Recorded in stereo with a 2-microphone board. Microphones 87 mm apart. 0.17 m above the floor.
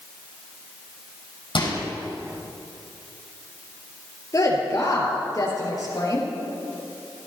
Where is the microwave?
75° left (ahead or behind), 4.5 m.